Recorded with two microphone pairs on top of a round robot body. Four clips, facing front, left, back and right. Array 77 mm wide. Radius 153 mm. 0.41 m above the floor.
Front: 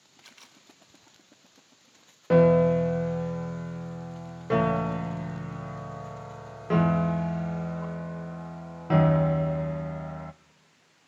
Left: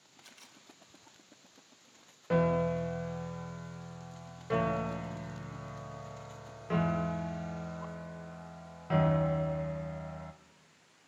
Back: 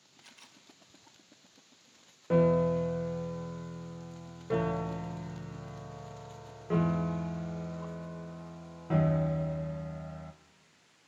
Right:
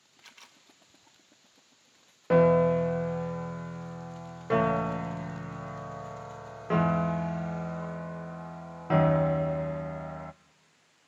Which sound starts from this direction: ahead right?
A piano, at 2.3 s.